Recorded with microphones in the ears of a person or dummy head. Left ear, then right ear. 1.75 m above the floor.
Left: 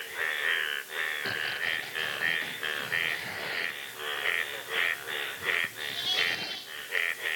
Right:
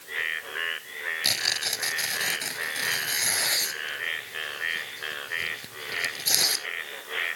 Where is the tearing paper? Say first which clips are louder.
Right 5 dB; 80° right.